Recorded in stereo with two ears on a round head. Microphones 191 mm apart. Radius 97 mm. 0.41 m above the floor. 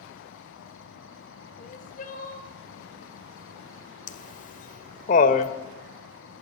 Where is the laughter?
40° left (ahead or behind), 1.8 m.